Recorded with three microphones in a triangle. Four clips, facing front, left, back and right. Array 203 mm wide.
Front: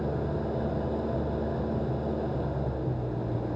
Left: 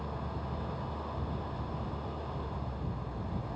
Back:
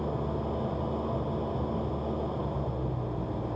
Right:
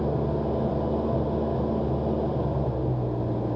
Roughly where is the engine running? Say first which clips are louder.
Right 13 dB, front 1 dB; right.